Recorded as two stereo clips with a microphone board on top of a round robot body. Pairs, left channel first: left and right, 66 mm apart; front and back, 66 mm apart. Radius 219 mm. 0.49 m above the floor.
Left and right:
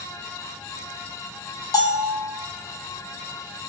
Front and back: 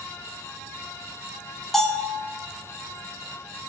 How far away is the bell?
About 1.6 m.